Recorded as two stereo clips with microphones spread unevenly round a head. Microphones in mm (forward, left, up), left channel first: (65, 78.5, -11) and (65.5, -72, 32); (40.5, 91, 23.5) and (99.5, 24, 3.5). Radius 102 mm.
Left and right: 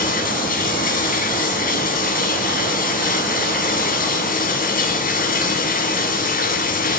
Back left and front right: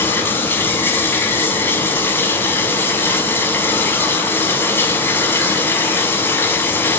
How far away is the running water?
About 7 m.